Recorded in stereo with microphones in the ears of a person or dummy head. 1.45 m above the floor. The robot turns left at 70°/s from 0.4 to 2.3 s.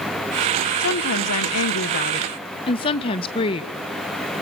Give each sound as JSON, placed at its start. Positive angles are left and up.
{"t": 0.8, "sound": "a woman speaking", "azimuth_deg": 130, "distance_m": 1.4}